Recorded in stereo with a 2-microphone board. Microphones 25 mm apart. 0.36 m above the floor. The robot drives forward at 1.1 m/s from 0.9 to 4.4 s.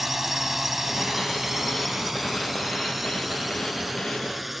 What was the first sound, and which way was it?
A drone, 15° right (ahead or behind).